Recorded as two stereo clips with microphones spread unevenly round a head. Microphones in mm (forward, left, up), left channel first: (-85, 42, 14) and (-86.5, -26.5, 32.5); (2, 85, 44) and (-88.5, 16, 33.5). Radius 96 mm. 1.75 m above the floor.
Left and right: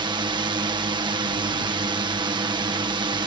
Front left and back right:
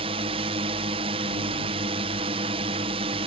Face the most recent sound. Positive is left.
turn(degrees=-95)